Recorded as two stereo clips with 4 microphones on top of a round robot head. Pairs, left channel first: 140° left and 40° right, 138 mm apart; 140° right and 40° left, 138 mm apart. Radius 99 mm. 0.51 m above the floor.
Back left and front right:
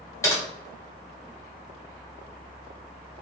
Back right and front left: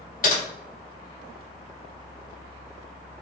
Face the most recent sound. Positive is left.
turn(degrees=-155)